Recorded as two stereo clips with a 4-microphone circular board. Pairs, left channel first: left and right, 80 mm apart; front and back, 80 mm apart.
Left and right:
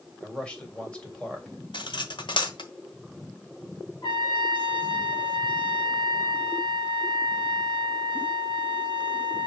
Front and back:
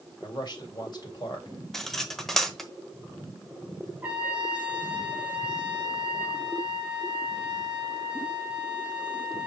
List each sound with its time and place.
0.2 s a man speaking: 15° left, 2.5 m
1.7 s cutlery clinking: 85° left, 1.0 m
4.0 s a trumpet: 110° left, 1.7 m